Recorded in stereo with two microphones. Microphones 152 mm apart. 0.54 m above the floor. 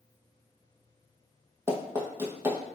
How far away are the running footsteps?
About 1.1 m.